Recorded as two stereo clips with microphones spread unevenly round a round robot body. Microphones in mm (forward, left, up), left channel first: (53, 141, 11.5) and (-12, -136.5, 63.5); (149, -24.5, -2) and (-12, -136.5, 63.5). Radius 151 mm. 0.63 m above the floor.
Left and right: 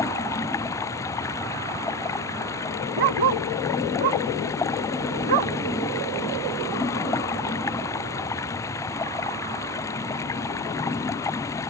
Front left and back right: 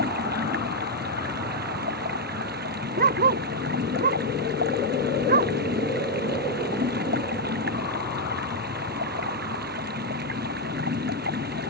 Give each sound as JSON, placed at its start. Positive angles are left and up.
{"t": 0.0, "sound": "running water", "azimuth_deg": 160}
{"t": 3.0, "sound": "a dog barking", "azimuth_deg": -110}